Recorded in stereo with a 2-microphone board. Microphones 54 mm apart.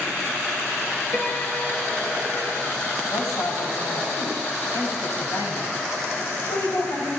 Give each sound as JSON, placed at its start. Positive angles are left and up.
{"t": 1.1, "sound": "a piano", "side_deg": 45, "distance_m": 5.5}
{"t": 3.1, "sound": "a woman speaking", "side_deg": 70, "distance_m": 8.0}